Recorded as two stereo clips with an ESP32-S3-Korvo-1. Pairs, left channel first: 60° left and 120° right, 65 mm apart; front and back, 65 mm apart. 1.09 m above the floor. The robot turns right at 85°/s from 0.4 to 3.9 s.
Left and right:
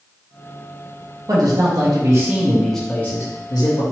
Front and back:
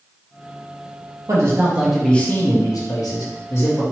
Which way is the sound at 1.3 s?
150° right.